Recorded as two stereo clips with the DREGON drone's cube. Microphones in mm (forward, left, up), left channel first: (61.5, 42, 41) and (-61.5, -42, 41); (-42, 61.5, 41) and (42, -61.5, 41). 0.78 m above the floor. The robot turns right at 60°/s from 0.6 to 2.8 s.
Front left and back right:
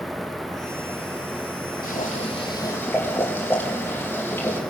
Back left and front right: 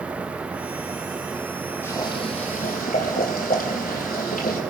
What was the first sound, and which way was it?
Boiling, 50° left.